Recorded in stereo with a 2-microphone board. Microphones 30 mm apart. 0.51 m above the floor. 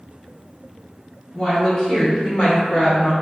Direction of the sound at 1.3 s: 10° left (ahead or behind).